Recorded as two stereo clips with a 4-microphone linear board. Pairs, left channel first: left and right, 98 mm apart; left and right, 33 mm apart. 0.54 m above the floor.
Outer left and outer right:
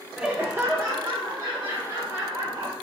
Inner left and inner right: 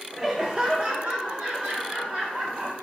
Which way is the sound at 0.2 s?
5° right (ahead or behind).